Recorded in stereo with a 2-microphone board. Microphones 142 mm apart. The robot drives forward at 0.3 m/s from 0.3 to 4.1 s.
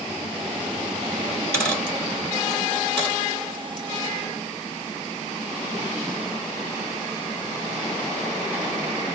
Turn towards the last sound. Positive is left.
turn(degrees=5)  # may be behind; listen again after turning